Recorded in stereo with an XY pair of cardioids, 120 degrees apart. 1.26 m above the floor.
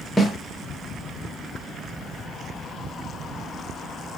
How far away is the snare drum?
About 1.2 m.